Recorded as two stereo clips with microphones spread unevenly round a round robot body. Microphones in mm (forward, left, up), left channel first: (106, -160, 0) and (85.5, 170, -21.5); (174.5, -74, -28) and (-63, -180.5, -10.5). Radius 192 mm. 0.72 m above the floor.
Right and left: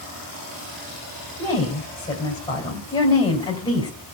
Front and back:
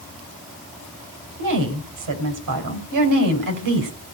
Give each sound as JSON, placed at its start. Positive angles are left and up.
{"t": 1.4, "sound": "a woman speaking", "azimuth_deg": -170, "distance_m": 3.5}